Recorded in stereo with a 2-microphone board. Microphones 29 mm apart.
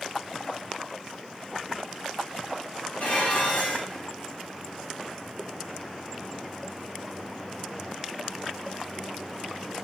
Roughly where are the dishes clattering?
Left.